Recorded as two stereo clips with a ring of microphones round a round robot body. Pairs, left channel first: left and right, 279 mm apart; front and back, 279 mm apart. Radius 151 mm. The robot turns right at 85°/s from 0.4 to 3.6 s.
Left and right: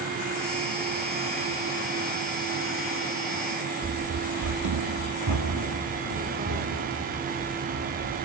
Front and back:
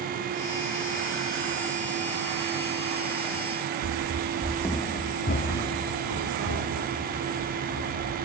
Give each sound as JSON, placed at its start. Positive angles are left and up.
{"t": 3.8, "sound": "running footsteps", "azimuth_deg": -150, "distance_m": 1.0}